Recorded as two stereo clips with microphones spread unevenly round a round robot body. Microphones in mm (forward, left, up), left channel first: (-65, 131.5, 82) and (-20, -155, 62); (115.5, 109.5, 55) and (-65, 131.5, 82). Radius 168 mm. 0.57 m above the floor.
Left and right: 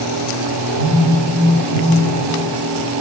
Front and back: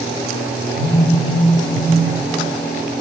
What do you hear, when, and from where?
0.7 s a phone buzzing: 40° right, 3.5 m